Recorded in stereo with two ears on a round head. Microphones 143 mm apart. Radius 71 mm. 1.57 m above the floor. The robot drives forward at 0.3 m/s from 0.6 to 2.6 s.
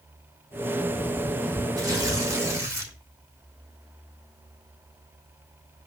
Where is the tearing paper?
20° right (ahead or behind), 5 m.